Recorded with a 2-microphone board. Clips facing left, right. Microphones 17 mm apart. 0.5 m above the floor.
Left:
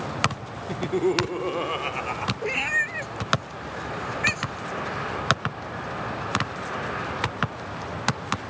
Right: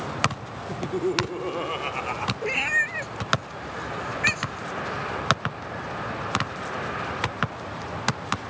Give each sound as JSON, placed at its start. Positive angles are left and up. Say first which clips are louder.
{"t": 0.7, "sound": "laughter", "louder": "left 3 dB", "side_deg": 35}
{"t": 2.4, "sound": "a cat meowing", "louder": "right 1 dB", "side_deg": -5}